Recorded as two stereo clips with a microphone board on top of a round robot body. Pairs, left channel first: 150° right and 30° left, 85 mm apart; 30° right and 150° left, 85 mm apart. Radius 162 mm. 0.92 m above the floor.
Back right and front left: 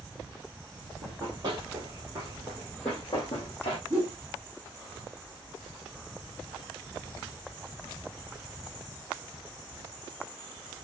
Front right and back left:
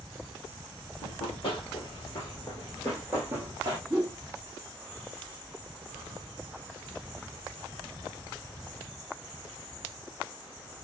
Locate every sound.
1.0 s running footsteps: 10° right, 1.7 m; by 3.8 s 165° right, 1.1 m
3.9 s a whoosh: 75° left, 0.6 m